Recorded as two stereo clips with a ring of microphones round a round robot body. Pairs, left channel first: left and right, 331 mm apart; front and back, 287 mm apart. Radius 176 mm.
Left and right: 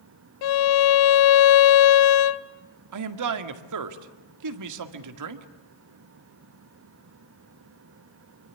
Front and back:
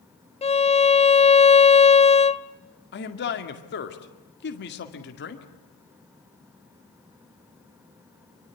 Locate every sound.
0.4 s a violin: 70° left, 0.9 m
2.9 s a man speaking: 55° right, 2 m